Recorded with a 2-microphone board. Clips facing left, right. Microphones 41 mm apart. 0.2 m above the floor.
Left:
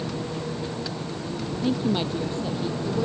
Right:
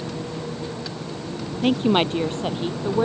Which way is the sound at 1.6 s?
65° right (ahead or behind).